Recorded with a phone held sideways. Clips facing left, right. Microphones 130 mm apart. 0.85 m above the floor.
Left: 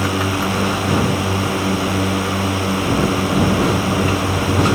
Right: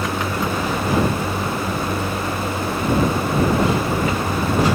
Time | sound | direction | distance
0.0 | a drone | 85° left | ?